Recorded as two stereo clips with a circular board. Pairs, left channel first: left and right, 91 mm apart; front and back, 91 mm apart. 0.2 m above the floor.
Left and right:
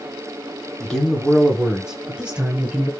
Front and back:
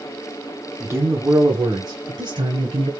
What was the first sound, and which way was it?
A man speaking, 165° left.